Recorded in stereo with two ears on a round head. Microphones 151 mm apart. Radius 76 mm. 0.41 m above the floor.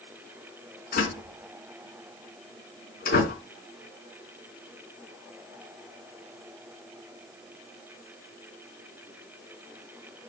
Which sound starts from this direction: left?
A door slam, at 0.9 s.